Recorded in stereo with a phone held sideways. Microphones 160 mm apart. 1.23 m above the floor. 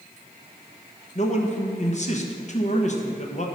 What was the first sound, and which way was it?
A man speaking, 45° left (ahead or behind).